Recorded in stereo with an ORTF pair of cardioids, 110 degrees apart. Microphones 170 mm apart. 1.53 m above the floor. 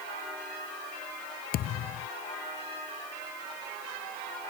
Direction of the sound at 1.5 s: 65° left.